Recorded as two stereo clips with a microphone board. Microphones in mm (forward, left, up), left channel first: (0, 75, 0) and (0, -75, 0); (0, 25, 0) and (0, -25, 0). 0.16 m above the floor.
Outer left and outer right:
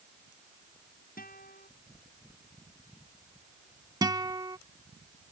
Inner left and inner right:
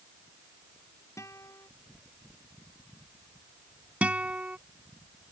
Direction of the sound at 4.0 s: 25° right (ahead or behind).